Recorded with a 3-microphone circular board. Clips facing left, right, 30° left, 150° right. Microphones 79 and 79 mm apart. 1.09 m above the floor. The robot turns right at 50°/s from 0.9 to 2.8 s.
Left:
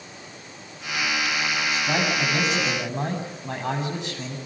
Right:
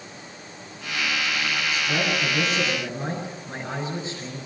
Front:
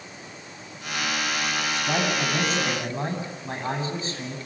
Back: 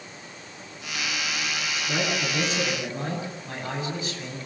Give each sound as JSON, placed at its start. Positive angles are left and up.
{"t": 1.7, "sound": "a man speaking", "azimuth_deg": 35, "distance_m": 9.0}